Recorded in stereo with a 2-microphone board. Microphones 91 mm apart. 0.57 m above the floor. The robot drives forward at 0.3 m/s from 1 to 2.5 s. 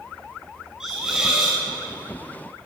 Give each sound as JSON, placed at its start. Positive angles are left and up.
{"t": 0.8, "sound": "a hiss", "side_deg": -5, "distance_m": 4.0}